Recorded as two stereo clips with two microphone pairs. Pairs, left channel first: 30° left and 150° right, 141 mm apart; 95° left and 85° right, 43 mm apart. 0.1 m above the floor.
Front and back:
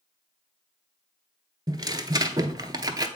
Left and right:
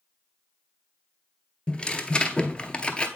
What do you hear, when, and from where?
1.7 s tearing paper: 160° left, 0.6 m